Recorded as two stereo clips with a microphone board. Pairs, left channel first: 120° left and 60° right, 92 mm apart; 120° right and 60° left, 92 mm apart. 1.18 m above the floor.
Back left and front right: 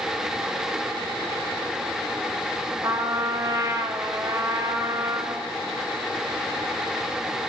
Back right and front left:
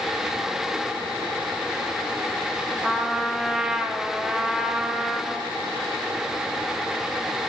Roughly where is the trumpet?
Ahead.